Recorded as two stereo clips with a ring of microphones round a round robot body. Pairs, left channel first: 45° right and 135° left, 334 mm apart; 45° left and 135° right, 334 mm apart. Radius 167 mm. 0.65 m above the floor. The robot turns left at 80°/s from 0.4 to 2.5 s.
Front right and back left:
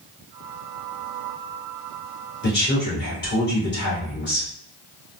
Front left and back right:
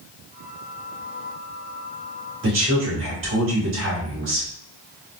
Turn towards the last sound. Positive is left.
turn(degrees=-95)